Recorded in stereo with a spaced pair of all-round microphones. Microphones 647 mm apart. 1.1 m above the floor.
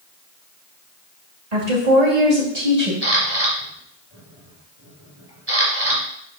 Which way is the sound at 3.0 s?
40° right (ahead or behind).